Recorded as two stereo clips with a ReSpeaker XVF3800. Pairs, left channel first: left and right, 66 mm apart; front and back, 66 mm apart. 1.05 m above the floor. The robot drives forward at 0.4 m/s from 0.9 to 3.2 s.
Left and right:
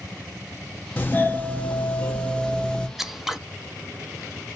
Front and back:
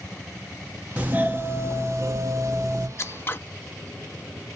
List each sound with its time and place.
1.0 s a doorbell: 125° left, 0.6 m; by 2.9 s 160° left, 1.2 m
3.0 s scissors: 5° right, 0.5 m; by 3.4 s 10° right, 0.5 m